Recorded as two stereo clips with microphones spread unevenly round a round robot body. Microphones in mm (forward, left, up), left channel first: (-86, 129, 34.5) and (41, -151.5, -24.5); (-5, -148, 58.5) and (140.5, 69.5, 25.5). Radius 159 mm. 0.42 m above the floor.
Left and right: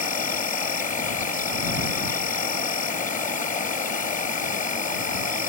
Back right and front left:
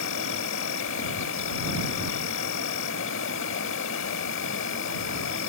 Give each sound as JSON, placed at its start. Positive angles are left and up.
{"t": 0.0, "sound": "an insect", "azimuth_deg": -175}